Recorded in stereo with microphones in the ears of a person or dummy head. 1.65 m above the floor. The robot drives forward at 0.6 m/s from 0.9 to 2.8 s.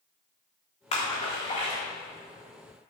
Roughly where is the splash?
Left.